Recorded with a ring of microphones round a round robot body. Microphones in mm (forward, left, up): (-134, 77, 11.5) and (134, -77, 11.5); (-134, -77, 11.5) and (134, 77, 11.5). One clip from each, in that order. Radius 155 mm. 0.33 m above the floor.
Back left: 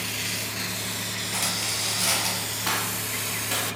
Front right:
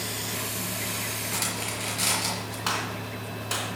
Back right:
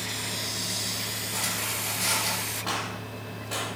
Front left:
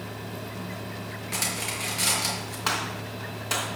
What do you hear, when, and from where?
1.3 s cutlery clinking: 10° left, 4.5 m
2.7 s a gunshot: 25° left, 3 m